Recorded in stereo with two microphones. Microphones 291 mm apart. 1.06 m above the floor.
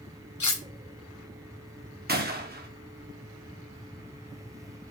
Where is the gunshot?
35° right (ahead or behind), 0.6 m.